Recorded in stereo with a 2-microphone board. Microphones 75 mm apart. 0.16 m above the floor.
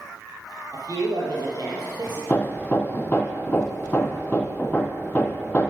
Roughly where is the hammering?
Left.